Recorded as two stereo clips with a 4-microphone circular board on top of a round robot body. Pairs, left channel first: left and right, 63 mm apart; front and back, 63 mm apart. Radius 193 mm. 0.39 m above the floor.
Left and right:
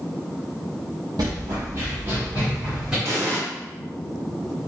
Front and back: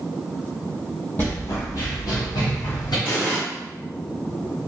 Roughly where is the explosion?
Ahead right.